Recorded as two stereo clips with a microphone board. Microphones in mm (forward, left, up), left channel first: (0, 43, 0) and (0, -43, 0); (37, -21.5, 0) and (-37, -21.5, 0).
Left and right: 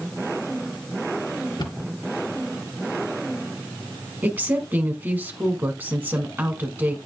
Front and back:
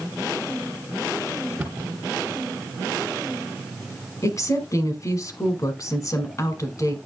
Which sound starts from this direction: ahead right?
A woman speaking, at 4.2 s.